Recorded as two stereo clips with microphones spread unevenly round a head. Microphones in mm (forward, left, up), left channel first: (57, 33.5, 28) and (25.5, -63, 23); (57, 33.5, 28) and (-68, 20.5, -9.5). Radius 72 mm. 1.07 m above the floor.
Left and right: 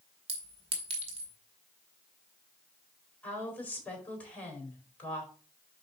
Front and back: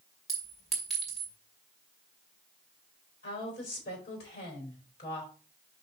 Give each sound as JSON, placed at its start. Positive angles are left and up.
{"t": 0.3, "sound": "a clink", "azimuth_deg": -80, "distance_m": 2.0}
{"t": 3.2, "sound": "a woman speaking", "azimuth_deg": 0, "distance_m": 4.0}